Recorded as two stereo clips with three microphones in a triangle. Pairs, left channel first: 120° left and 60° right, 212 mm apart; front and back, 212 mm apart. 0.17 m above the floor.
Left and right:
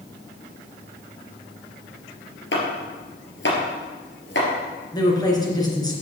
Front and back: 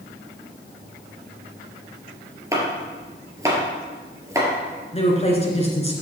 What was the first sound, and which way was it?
Chopping, 105° left.